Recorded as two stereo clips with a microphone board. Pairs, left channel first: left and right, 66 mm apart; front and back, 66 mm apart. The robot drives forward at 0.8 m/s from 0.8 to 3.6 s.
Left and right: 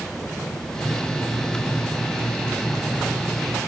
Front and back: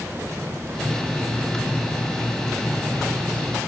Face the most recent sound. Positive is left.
No sound to turn to.